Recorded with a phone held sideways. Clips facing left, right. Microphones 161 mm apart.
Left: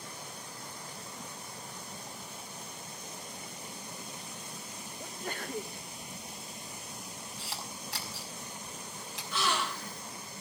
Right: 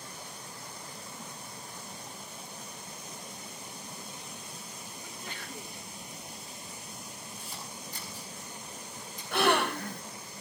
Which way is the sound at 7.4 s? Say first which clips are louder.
Left 1 dB; 85° left.